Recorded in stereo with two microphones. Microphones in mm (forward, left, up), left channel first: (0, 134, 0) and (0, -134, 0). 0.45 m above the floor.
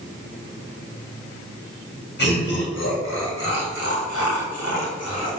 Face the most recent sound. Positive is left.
turn(degrees=65)  # may be behind; listen again after turning